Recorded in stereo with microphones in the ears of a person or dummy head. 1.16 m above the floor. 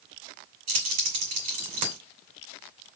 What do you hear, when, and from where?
0.7 s keys jangling: 45° right (ahead or behind), 2.5 m